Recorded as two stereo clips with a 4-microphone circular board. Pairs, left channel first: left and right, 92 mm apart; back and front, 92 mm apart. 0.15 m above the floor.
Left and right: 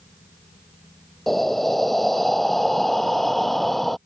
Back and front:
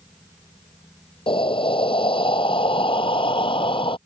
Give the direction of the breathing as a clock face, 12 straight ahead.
6 o'clock.